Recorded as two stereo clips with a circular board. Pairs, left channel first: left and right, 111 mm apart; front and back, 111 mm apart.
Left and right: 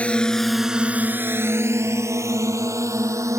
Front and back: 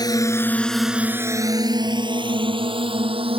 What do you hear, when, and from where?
0.0 s a drone: 20° left; by 3.4 s 150° right